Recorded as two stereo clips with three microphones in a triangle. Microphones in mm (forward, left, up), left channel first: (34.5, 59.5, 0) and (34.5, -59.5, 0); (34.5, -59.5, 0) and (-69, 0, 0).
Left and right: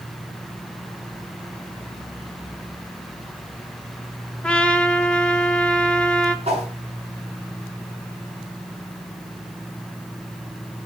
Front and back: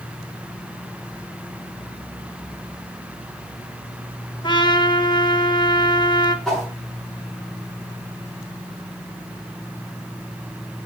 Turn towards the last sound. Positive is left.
turn(degrees=-115)